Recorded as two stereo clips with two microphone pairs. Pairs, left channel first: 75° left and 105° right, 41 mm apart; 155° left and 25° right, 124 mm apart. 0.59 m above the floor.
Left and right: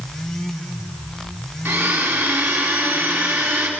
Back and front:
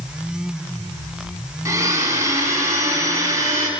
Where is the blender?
90° right, 4 m.